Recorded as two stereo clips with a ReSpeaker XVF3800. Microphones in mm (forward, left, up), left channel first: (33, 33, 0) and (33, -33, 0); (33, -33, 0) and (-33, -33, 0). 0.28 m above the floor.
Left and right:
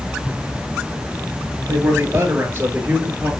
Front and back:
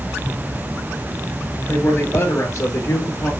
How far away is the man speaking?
About 4 m.